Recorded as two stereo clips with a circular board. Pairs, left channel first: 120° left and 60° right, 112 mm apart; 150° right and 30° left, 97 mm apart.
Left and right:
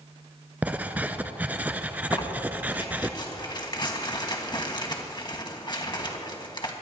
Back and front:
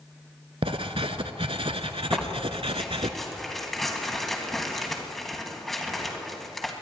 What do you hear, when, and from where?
0.6 s writing: 15° left, 0.7 m
2.1 s tearing paper: 125° left, 1.9 m